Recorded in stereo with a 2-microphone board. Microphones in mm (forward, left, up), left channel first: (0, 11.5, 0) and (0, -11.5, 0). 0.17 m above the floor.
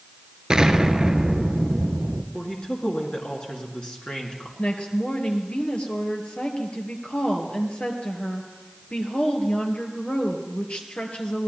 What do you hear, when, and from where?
0.5 s an explosion: 30° right (ahead or behind), 1.0 m
2.3 s a woman speaking: 45° left (ahead or behind), 2.5 m
4.6 s a woman speaking: 65° left (ahead or behind), 2.5 m